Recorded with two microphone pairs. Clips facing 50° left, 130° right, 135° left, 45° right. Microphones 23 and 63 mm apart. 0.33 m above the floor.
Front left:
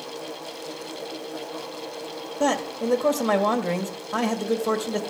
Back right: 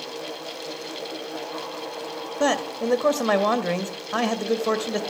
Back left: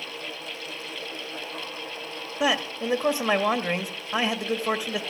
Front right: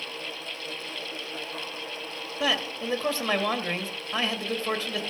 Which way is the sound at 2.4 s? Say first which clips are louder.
Back right 1 dB, back left 3 dB; 165° right.